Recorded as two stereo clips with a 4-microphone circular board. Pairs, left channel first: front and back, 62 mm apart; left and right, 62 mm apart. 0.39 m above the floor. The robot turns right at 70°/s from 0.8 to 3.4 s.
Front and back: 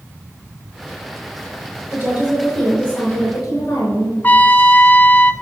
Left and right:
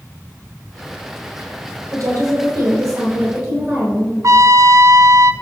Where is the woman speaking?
135° right, 5 m; by 4.1 s 30° right, 5 m.